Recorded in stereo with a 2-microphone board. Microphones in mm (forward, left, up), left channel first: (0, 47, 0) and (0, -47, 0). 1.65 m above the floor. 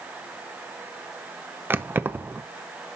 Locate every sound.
1.7 s keys jangling: 20° right (ahead or behind), 0.7 m